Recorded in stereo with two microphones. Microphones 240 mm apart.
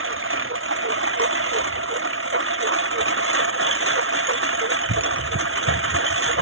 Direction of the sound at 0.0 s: 65° right (ahead or behind).